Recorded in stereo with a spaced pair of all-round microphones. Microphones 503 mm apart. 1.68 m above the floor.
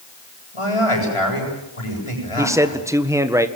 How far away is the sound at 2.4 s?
About 1.7 m.